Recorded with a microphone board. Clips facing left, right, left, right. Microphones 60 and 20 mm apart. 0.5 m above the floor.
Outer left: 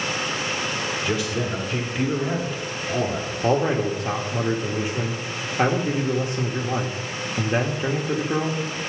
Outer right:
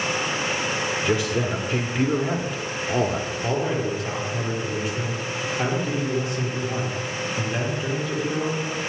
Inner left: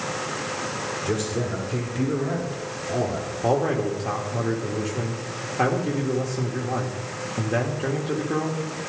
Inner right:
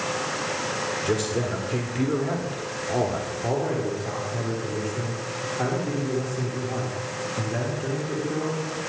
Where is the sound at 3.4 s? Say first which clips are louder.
Outer left 5 dB, inner left 5 dB; 30° left (ahead or behind), 1.2 m.